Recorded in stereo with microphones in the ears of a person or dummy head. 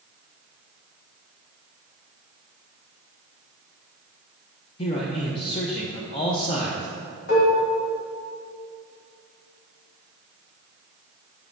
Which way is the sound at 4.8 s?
30° left (ahead or behind).